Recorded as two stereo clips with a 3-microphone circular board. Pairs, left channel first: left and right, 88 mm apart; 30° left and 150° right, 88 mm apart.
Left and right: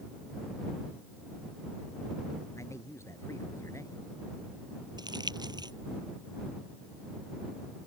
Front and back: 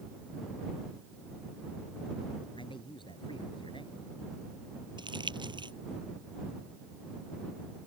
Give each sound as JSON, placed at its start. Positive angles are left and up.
{"t": 2.6, "sound": "a man speaking", "azimuth_deg": 35}
{"t": 5.0, "sound": "crumpling", "azimuth_deg": -125}